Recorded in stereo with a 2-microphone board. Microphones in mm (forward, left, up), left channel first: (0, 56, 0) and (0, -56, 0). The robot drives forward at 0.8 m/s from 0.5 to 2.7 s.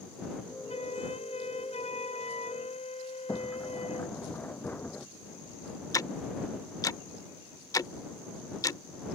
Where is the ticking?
30° left (ahead or behind).